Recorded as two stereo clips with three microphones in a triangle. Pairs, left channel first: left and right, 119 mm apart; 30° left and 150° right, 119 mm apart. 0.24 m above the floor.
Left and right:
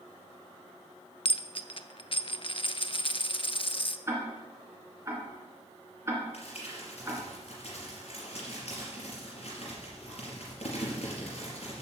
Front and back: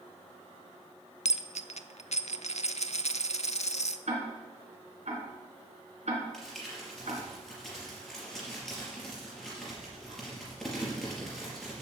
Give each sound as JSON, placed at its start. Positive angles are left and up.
{"t": 1.2, "sound": "a dropped coin", "azimuth_deg": 50, "distance_m": 0.5}
{"t": 4.1, "sound": "ticking", "azimuth_deg": -155, "distance_m": 3.0}
{"t": 6.3, "sound": "crumpling", "azimuth_deg": 115, "distance_m": 4.5}